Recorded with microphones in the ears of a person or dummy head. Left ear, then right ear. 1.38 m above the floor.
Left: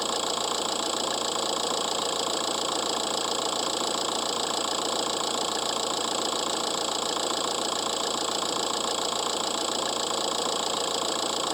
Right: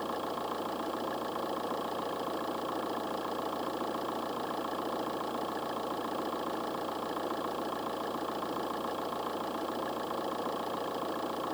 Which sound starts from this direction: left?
An engine running, at 0.0 s.